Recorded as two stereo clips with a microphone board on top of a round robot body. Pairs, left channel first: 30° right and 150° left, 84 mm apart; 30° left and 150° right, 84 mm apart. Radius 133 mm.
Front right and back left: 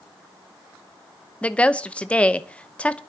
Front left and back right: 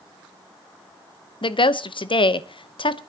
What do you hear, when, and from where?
1.4 s a woman speaking: 45° left, 1.0 m